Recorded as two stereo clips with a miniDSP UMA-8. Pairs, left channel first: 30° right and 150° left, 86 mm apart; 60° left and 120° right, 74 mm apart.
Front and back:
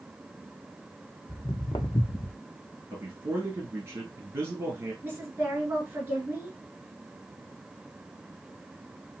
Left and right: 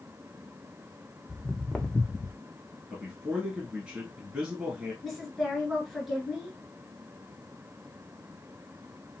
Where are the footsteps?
30° right, 1.4 m; by 2.4 s 25° left, 0.5 m.